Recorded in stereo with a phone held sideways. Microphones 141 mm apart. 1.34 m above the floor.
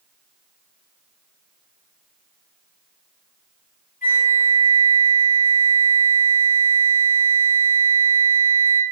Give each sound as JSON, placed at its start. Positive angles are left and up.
{"t": 4.0, "sound": "a flute", "side_deg": 80, "distance_m": 4.0}